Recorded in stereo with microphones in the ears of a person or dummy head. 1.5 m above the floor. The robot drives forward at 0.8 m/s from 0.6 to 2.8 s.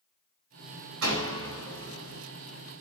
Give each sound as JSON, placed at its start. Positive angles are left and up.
{"t": 1.0, "sound": "a door slam", "side_deg": -80, "distance_m": 4.0}